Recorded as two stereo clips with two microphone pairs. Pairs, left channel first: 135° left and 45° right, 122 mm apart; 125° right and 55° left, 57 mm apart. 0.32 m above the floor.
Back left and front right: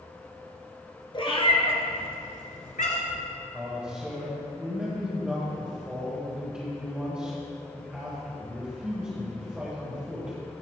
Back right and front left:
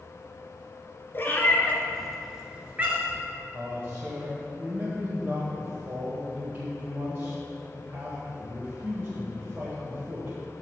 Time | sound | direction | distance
1.1 | a cat meowing | 170° right | 1.1 m
3.5 | a man speaking | 30° left | 1.7 m